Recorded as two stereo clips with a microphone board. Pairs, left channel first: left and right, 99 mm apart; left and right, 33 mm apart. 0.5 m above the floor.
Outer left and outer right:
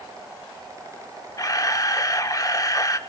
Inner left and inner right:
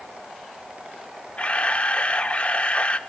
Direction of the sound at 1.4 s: 35° left (ahead or behind).